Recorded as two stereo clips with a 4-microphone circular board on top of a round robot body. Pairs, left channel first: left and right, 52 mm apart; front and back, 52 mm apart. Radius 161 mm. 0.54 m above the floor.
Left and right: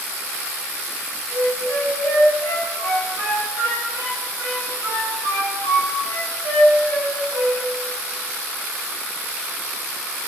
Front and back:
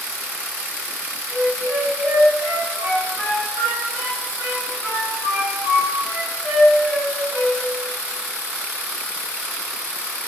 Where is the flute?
115° left, 1.5 m.